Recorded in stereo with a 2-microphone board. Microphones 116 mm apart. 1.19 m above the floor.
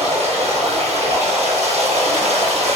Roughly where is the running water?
Right.